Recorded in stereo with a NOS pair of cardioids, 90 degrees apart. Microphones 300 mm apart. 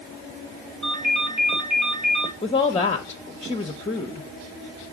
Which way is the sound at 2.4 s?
20° left.